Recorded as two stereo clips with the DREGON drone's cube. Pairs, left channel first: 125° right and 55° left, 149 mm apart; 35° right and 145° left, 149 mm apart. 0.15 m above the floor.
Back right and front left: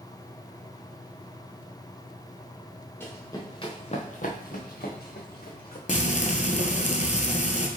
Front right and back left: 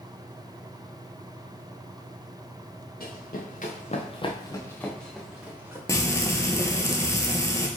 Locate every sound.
3.0 s running footsteps: 50° right, 1.2 m; by 5.8 s 135° right, 1.4 m
5.9 s frying: 100° right, 0.6 m